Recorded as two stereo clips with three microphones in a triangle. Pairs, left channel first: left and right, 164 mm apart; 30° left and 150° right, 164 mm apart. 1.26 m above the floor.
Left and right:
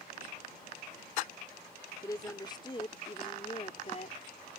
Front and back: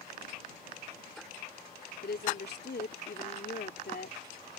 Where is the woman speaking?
20° left; by 4.2 s 45° left.